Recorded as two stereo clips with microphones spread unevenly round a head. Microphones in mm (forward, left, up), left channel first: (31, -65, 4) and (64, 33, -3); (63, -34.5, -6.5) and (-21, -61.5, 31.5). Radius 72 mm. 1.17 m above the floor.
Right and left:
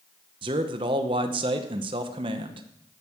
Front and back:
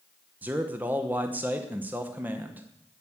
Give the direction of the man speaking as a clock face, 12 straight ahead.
8 o'clock.